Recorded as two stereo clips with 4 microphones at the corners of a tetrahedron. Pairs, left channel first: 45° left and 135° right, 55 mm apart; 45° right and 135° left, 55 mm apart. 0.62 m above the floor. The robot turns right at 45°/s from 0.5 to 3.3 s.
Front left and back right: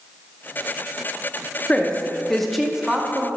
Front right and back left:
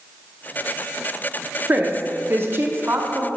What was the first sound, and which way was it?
A woman speaking, 100° left.